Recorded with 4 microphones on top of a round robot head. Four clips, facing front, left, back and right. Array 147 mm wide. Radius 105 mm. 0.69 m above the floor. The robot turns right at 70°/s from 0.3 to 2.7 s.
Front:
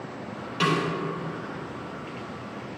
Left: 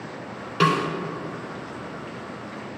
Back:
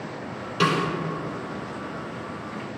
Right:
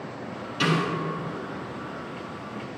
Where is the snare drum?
100° left, 2.5 m; by 0.9 s 120° left, 2.5 m.